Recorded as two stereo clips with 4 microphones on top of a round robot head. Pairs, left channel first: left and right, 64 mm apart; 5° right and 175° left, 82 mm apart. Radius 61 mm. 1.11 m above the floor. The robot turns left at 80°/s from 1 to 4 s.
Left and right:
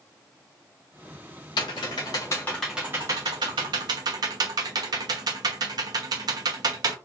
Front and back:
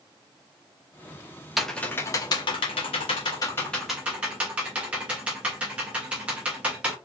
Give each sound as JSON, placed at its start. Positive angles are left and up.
{"t": 1.6, "sound": "typing on a keyboard", "azimuth_deg": 90, "distance_m": 0.8}